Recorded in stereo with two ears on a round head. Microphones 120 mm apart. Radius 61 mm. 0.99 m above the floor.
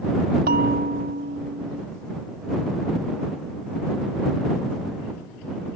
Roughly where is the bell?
Right.